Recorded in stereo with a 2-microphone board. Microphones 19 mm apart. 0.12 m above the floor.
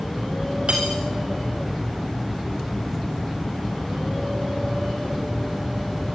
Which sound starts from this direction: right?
Cutlery clinking, at 0.7 s.